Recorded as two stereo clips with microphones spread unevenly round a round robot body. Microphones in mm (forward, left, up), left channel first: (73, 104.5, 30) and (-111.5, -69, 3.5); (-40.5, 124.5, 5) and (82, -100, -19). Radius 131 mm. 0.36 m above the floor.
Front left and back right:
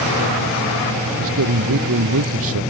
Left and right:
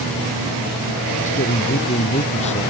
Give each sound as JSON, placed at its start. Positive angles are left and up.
{"t": 1.2, "sound": "a man speaking", "azimuth_deg": -175}